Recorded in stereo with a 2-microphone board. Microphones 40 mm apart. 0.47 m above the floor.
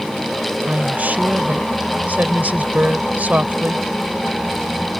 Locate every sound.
0.7 s a woman speaking: 45° right (ahead or behind)